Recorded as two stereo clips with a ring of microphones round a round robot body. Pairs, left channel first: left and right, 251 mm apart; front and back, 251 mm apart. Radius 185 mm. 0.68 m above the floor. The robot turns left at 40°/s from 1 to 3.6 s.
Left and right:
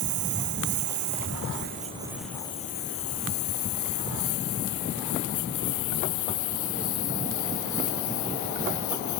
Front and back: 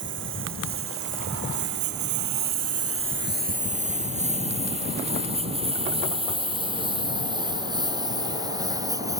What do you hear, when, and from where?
0.0 s a lawn mower: 120° right; by 9.2 s 105° left